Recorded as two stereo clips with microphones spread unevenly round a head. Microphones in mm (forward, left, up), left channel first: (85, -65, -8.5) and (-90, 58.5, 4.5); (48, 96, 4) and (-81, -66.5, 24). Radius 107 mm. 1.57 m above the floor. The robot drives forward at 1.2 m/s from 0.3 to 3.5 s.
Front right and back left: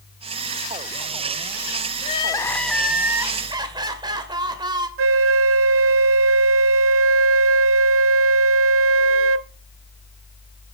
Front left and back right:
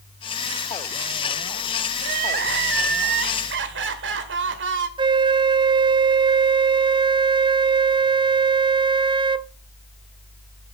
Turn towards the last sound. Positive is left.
turn(degrees=165)